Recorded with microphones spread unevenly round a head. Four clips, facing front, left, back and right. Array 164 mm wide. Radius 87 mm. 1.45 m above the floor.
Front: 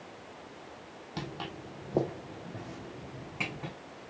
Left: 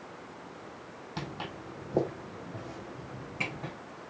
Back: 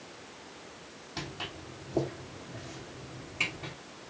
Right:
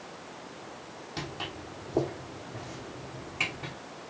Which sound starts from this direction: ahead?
Footsteps, at 1.2 s.